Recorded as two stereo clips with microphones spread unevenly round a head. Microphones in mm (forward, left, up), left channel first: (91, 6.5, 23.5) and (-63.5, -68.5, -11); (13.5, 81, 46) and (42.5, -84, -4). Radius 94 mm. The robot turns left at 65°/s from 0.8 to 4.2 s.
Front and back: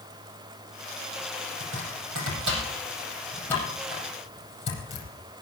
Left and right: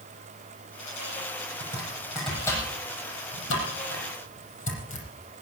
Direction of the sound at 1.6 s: 130° right.